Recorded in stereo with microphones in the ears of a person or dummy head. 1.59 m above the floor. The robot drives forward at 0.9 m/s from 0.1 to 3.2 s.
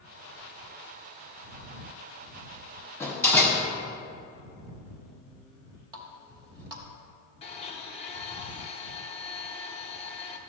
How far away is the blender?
About 0.7 m.